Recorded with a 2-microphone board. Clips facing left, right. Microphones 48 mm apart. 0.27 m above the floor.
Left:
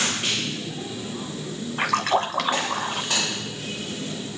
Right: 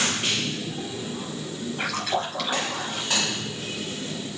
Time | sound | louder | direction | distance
1.8 | a splash | left 6 dB | 55° left (ahead or behind) | 1.3 m